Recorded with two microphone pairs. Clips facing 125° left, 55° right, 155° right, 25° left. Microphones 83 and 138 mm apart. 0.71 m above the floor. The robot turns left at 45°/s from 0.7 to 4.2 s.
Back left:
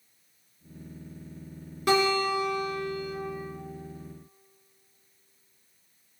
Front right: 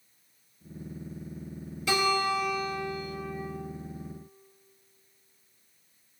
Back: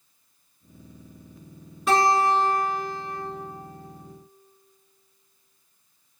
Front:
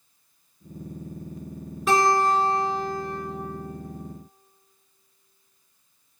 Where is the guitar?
115° left, 1.6 m; by 3.2 s 55° left, 1.6 m.